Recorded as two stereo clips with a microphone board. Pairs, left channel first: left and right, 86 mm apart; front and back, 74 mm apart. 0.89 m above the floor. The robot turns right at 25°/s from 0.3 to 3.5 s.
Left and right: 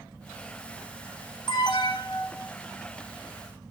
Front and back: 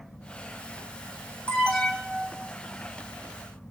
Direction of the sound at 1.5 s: 75° left.